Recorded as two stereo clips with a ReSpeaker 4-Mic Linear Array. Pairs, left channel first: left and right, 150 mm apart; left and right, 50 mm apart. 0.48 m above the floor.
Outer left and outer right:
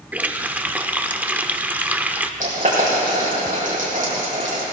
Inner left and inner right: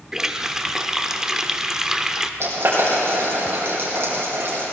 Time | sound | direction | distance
0.1 | a running tap | 10° right (ahead or behind) | 0.6 m
2.4 | boiling | 55° right (ahead or behind) | 5.5 m